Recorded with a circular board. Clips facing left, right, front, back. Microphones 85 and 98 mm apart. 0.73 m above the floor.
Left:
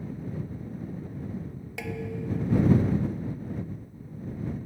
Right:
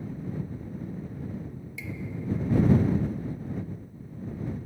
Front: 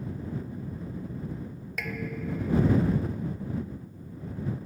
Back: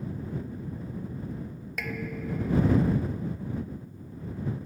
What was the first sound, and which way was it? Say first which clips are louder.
Dishes clattering: left 4 dB, even; 90° left.